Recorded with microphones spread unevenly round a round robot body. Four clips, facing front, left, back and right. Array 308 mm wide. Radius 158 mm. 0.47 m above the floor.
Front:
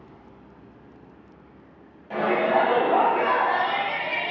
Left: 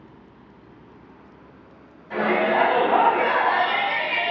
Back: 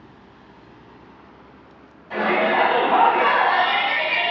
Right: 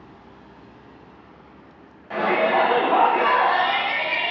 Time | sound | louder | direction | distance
2.1 | a shout | right 1 dB, back 2 dB | 50° right | 1.0 m